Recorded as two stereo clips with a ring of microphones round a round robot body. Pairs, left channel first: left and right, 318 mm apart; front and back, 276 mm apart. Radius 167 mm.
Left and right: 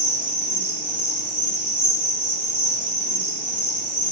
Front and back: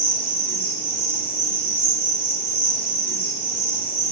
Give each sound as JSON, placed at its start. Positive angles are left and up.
{"t": 0.0, "sound": "an insect", "azimuth_deg": -15, "distance_m": 1.9}